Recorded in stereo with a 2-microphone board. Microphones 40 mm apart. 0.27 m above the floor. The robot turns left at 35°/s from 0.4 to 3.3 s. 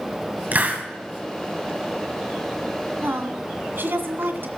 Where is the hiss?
45° right (ahead or behind), 2.5 m; by 0.8 s 40° right (ahead or behind), 2.5 m.